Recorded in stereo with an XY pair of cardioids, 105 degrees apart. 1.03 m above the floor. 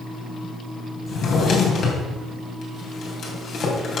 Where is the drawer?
60° left, 3 m.